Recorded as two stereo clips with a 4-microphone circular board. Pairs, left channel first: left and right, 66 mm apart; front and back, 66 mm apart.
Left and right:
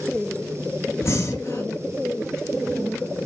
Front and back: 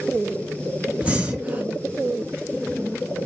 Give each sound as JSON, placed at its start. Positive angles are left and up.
{"t": 1.0, "sound": "breathing", "azimuth_deg": 115, "distance_m": 0.9}